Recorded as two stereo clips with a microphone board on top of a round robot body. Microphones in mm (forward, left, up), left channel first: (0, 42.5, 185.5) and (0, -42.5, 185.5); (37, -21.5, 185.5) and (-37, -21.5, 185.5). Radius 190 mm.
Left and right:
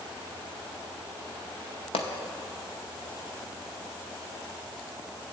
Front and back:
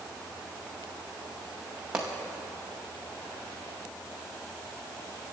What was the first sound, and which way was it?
A pop, 100° left.